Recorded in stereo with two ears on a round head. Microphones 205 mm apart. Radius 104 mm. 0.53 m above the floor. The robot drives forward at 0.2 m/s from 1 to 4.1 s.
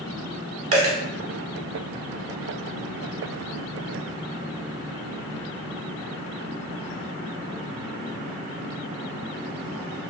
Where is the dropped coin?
75° right (ahead or behind), 0.9 m.